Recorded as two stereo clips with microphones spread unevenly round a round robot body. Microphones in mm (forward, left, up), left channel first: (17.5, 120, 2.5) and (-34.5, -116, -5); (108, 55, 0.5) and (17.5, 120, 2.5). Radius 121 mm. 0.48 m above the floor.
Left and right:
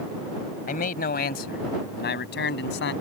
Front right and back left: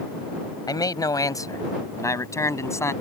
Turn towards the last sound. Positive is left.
turn(degrees=30)